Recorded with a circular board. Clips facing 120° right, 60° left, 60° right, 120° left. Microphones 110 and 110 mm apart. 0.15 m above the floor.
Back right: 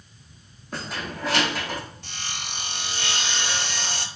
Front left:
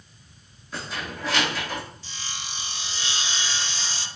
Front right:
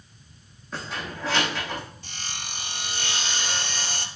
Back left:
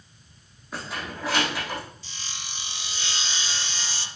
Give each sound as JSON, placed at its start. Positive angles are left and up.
{"t": 0.7, "sound": "keys jangling", "azimuth_deg": -160, "distance_m": 5.0}
{"t": 2.0, "sound": "sawing", "azimuth_deg": -95, "distance_m": 0.8}